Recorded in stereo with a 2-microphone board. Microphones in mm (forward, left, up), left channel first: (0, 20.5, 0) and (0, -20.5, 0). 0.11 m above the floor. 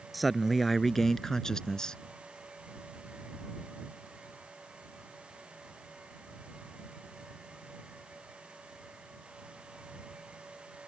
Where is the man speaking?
Centre (ahead or behind); by 2.0 s 20° left (ahead or behind).